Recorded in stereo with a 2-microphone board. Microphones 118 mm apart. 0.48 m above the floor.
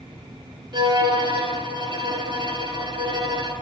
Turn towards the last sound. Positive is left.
turn(degrees=-45)  # may be behind; listen again after turning